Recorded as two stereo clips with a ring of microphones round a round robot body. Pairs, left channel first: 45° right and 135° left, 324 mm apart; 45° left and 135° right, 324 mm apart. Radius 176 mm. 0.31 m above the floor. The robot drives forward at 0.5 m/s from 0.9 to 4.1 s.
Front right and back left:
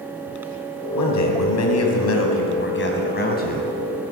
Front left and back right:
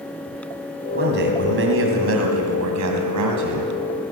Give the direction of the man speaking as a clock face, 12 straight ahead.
2 o'clock.